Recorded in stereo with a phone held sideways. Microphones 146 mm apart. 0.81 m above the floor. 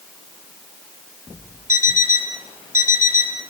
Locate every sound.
1.7 s an alarm clock: 65° left (ahead or behind), 6 m